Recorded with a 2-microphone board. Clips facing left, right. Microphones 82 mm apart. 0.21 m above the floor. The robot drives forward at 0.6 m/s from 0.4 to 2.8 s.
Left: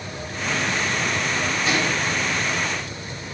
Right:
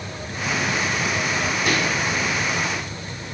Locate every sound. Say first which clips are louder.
1.7 s a microwave: even; 70° right (ahead or behind), 3 m